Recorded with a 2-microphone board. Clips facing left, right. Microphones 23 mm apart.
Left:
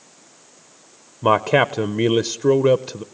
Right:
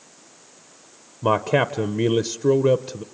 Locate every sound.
1.2 s a man speaking: 25° left (ahead or behind), 0.6 m